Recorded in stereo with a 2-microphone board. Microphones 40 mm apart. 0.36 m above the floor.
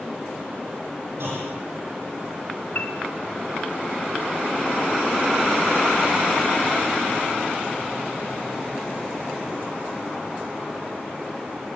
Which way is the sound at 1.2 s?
75° right (ahead or behind).